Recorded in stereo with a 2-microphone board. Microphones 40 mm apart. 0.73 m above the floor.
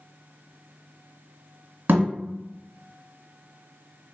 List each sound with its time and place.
1.9 s a thud: 65° right (ahead or behind), 1.4 m